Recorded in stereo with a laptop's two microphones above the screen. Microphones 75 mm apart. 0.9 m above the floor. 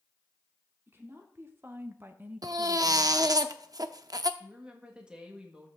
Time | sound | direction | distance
0.9 | a woman speaking | 30° right (ahead or behind) | 2.5 m
2.4 | a baby crying | 55° right (ahead or behind) | 0.6 m
4.4 | a woman speaking | 15° right (ahead or behind) | 1.5 m